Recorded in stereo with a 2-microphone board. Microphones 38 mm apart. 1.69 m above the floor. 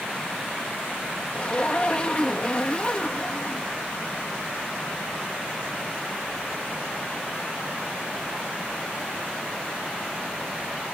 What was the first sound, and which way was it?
A zipper, 30° left (ahead or behind).